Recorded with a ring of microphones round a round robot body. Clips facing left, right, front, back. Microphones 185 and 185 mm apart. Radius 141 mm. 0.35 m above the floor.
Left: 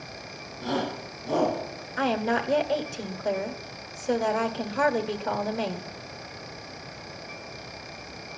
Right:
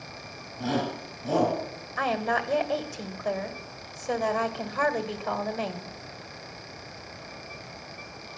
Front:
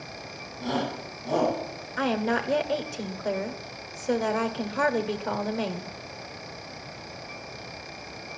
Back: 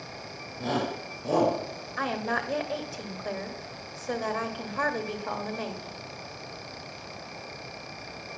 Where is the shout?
145° right, 7 m.